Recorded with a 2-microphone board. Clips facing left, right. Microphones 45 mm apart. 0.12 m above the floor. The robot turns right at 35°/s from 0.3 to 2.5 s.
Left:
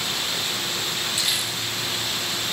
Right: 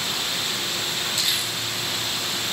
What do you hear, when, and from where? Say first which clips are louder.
1.2 s crumpling: even; 20° left (ahead or behind), 5.5 m; by 1.5 s 5° left (ahead or behind), 5.5 m